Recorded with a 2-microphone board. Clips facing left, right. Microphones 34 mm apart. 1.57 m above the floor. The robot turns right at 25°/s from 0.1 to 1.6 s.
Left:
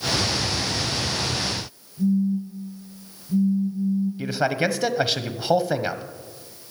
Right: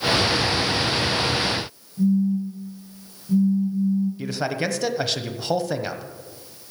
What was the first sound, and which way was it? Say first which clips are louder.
A phone buzzing: right 2 dB; 35° right (ahead or behind).